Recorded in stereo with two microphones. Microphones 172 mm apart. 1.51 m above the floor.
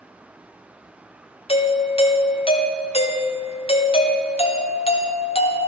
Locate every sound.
1.5 s a doorbell: 35° left (ahead or behind), 0.7 m